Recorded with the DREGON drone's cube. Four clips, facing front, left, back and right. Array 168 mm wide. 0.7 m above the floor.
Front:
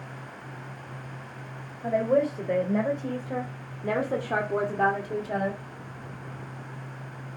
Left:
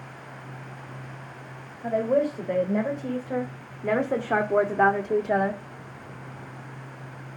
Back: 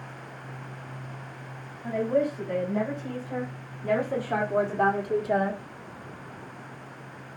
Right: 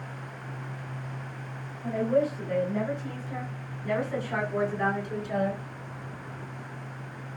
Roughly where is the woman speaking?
Ahead left.